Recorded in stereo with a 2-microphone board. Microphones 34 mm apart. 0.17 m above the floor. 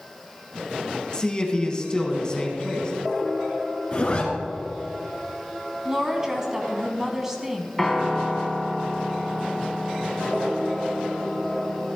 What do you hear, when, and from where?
1.1 s a man speaking: 25° left (ahead or behind), 1.5 m
3.9 s a zipper: 40° left (ahead or behind), 2.5 m
5.8 s a woman speaking: 15° right (ahead or behind), 1.1 m
7.8 s a piano: 10° left (ahead or behind), 1.3 m